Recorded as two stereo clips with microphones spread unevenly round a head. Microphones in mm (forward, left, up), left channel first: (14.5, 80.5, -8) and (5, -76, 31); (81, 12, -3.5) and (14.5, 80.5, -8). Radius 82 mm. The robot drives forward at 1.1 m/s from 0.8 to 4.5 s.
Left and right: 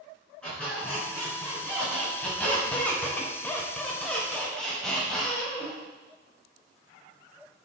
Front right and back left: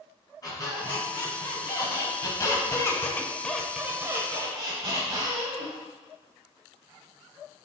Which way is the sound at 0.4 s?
Straight ahead.